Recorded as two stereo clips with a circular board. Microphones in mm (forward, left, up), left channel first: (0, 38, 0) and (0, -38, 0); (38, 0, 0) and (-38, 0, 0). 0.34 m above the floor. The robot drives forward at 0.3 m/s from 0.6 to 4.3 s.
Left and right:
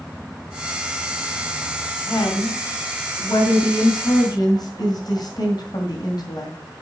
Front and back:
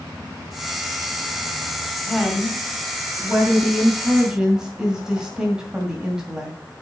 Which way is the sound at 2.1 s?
80° left.